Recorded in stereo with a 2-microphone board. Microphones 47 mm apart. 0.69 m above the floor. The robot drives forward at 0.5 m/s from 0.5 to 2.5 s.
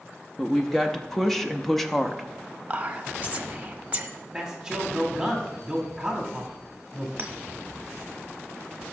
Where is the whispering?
25° right (ahead or behind), 1.1 m.